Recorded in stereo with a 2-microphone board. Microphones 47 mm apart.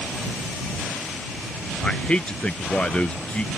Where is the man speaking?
25° left (ahead or behind).